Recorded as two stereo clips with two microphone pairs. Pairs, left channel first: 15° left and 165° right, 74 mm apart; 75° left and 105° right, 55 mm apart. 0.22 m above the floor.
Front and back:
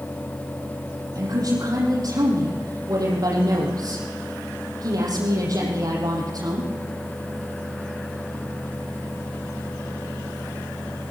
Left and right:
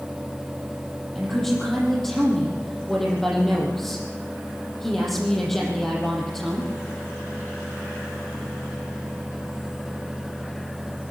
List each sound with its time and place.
1.1 s a woman speaking: 155° left, 6.5 m